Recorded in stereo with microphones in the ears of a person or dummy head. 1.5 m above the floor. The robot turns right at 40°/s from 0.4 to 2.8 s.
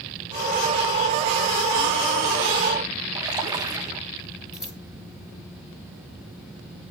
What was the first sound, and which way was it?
A splash, 15° right (ahead or behind).